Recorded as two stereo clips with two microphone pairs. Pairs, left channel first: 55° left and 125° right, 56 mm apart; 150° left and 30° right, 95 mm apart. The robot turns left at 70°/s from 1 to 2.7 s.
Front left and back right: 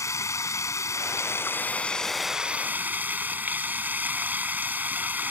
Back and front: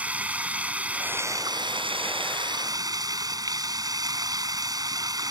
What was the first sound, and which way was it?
Running water, 45° left.